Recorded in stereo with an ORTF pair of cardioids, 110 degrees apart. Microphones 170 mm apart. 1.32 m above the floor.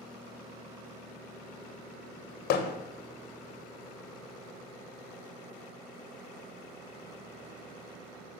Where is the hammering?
70° left, 1.2 m.